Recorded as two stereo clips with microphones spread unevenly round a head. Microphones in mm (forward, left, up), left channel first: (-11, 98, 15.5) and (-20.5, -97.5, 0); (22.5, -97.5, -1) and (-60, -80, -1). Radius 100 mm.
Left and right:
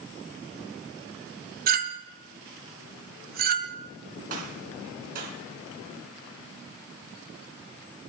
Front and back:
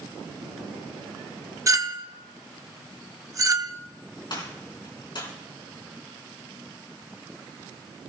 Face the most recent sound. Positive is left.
turn(degrees=-40)